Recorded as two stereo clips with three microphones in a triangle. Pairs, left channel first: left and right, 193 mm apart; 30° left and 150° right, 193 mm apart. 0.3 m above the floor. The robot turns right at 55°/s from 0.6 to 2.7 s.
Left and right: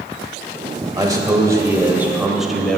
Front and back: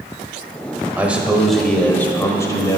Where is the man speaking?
85° right, 1.3 m; by 2.8 s 10° left, 1.3 m.